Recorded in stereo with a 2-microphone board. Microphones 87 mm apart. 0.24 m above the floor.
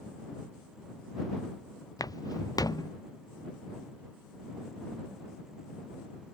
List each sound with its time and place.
2.0 s footsteps: 45° left (ahead or behind)